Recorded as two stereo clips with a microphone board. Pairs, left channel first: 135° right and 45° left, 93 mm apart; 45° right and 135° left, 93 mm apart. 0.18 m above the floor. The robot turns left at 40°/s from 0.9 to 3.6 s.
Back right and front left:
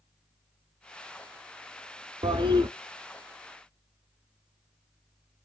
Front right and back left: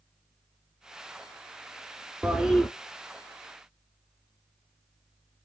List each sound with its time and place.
2.2 s a toilet flushing: 60° left, 0.5 m; by 2.7 s 45° left, 0.5 m